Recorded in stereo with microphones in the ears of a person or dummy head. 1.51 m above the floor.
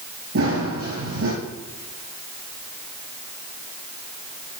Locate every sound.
0.3 s running footsteps: 75° right (ahead or behind), 5.5 m